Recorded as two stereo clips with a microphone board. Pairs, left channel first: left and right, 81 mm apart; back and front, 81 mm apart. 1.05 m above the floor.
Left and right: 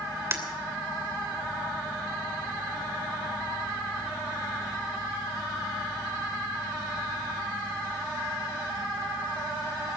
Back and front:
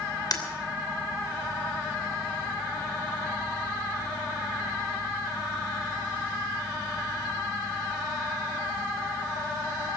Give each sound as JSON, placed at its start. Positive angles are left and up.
{"t": 0.3, "sound": "breaking glass", "azimuth_deg": -150, "distance_m": 2.5}